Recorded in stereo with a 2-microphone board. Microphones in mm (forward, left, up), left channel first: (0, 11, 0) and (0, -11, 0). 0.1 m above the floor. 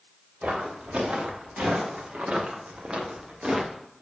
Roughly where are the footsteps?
Right.